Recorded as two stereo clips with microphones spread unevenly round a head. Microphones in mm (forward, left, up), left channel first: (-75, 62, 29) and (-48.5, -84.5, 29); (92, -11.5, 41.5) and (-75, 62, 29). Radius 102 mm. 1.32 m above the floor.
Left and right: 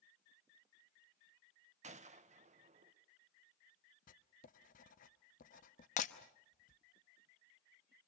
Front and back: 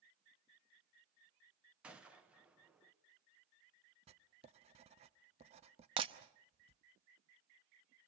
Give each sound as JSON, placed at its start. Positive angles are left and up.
{"t": 1.8, "sound": "a gunshot", "azimuth_deg": -120, "distance_m": 1.4}
{"t": 4.1, "sound": "writing", "azimuth_deg": 105, "distance_m": 0.8}
{"t": 6.0, "sound": "breaking glass", "azimuth_deg": 100, "distance_m": 0.8}